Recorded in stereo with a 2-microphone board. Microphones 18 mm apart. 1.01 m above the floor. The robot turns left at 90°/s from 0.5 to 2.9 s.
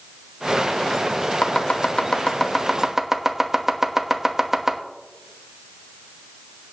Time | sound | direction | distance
1.4 | chopping | 55° left (ahead or behind) | 1.2 m